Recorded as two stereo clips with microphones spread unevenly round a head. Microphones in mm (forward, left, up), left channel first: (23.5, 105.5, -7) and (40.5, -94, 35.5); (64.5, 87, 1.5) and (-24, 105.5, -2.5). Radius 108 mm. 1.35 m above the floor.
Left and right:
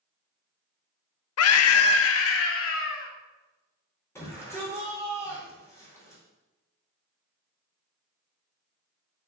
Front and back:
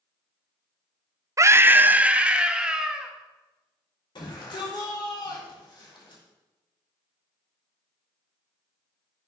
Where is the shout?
20° left, 5 m.